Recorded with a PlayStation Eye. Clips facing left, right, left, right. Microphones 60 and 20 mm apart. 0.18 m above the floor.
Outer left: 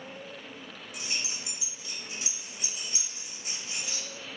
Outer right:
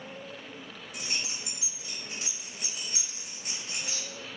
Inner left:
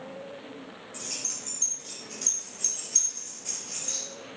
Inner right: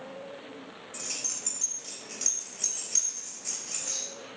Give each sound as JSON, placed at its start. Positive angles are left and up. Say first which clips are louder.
{"t": 0.9, "sound": "keys jangling", "louder": "outer right 1 dB, even", "side_deg": -55, "distance_m": 1.5}